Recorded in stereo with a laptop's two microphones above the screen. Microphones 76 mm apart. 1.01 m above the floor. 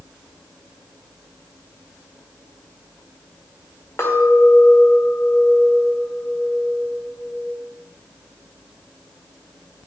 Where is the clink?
45° left (ahead or behind), 2.0 m.